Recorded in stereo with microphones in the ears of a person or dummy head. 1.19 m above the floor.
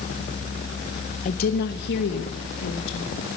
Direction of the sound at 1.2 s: 35° left (ahead or behind).